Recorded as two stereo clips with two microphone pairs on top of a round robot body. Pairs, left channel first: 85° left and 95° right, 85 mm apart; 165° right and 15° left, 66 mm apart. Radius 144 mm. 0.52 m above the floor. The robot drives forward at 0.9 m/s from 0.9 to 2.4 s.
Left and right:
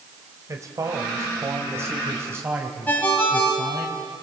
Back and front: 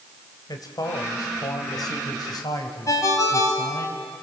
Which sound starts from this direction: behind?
A ringtone, at 2.9 s.